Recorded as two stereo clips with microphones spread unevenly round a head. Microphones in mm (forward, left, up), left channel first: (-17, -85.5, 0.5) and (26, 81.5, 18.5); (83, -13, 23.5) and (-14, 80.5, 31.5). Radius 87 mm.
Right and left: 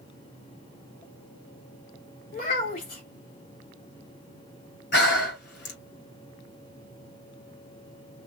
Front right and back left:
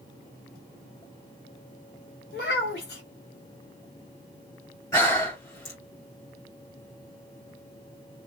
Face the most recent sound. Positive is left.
turn(degrees=-115)